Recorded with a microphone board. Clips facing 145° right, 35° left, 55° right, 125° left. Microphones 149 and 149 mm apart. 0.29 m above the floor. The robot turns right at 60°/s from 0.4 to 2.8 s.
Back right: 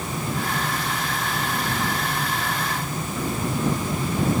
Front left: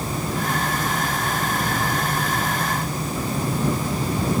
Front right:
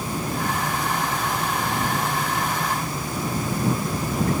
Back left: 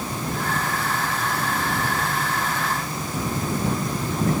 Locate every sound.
Only background noise.